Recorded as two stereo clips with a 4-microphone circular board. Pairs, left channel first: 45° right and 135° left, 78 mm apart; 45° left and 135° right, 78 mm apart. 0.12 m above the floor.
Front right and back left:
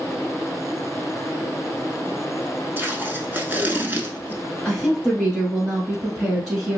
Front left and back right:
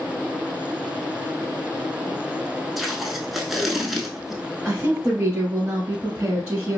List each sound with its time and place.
2.8 s tape being pulled: 140° left, 0.5 m
4.7 s a woman speaking: 140° right, 1.1 m